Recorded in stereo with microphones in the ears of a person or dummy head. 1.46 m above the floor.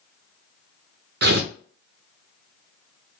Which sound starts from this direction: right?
Tearing paper, at 1.2 s.